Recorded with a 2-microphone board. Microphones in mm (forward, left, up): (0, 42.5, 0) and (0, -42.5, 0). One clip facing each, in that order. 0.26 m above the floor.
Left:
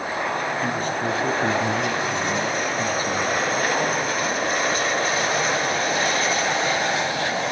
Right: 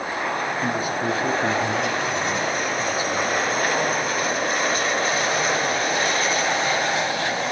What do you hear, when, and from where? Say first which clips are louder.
0.6 s a man speaking: even; 10° right (ahead or behind), 3 m; by 3.4 s 50° left (ahead or behind), 3 m